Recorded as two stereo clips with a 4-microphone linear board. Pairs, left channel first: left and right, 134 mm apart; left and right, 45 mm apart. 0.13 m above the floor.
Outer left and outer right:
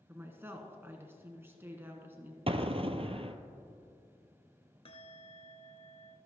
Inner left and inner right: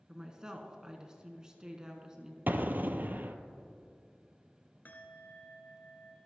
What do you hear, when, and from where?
0.1 s a woman speaking: 20° right (ahead or behind), 1.2 m
2.5 s an explosion: 50° right (ahead or behind), 0.7 m
4.8 s a bell: 50° left (ahead or behind), 1.0 m